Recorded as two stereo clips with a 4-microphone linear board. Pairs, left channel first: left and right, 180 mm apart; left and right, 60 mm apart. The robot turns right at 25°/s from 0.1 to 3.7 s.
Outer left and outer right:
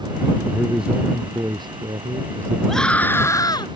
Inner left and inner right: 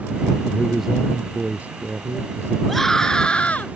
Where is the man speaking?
175° left; by 2.6 s 130° right.